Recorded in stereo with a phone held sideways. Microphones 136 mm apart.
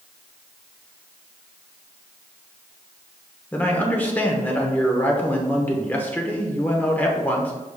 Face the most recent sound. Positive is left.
turn(degrees=10)  # may be behind; listen again after turning